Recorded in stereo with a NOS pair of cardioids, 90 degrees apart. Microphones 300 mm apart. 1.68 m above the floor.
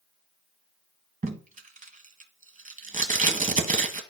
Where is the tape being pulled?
25° right, 1.3 m.